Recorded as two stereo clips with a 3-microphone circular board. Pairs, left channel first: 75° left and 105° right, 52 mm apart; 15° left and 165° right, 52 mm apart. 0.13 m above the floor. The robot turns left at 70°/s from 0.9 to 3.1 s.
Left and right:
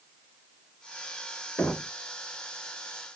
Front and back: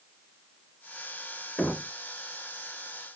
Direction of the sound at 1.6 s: 50° left.